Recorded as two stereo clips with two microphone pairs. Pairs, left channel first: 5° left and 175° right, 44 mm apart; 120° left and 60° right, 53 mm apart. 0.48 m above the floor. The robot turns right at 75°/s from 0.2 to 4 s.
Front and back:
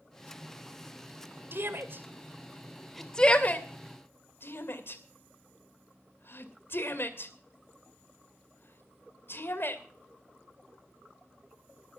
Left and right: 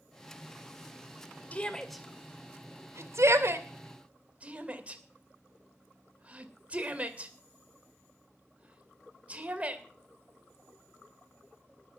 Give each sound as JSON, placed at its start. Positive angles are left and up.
{"t": 1.5, "sound": "a shout", "azimuth_deg": 175, "distance_m": 2.5}